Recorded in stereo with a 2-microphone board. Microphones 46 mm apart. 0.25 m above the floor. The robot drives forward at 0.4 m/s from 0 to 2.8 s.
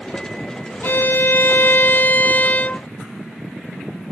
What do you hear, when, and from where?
0.8 s a violin: 55° left (ahead or behind); by 2.9 s 35° left (ahead or behind)